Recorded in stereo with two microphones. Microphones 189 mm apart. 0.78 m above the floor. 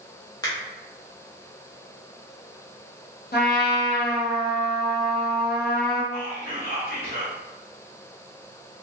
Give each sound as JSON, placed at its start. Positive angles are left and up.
{"t": 0.4, "sound": "a finger snap", "side_deg": 20, "distance_m": 0.7}
{"t": 3.3, "sound": "a trumpet", "side_deg": 55, "distance_m": 0.6}
{"t": 6.1, "sound": "whispering", "side_deg": 50, "distance_m": 1.4}